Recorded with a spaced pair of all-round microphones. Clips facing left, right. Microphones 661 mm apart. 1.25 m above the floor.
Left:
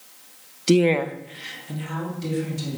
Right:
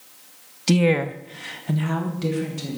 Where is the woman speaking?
25° right (ahead or behind), 0.9 m; by 2.8 s 80° right, 3 m.